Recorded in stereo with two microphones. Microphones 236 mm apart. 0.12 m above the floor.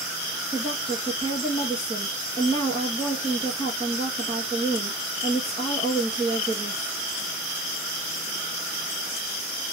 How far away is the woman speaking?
About 1.8 m.